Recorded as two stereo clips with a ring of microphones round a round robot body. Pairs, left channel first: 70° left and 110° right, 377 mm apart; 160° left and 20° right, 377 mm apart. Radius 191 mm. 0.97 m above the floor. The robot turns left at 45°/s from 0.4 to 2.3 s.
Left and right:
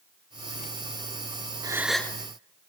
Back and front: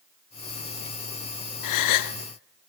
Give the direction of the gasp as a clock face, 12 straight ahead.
6 o'clock.